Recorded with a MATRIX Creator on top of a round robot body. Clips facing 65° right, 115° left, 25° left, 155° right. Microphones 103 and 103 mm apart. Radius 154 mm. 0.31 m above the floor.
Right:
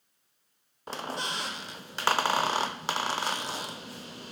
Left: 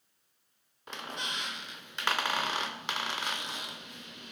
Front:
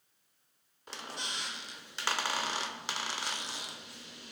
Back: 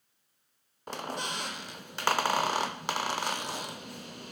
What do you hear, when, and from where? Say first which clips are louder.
0.9 s a squeak: right 5 dB, back 7 dB; 120° right, 0.6 m